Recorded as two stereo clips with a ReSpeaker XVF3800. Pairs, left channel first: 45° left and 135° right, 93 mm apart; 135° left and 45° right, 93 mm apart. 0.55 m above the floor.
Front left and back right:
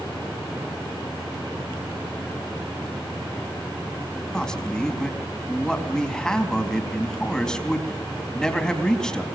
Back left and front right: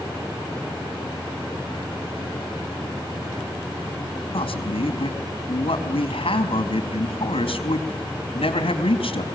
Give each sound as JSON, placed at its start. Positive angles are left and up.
{"t": 4.3, "sound": "a man speaking", "azimuth_deg": 130, "distance_m": 4.0}